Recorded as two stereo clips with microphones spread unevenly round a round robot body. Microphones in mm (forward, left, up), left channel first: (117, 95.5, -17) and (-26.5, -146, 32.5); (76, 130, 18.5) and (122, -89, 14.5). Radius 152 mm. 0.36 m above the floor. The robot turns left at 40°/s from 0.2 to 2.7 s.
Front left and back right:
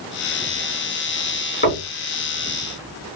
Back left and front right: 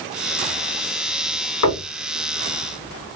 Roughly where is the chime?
No chime in this recording.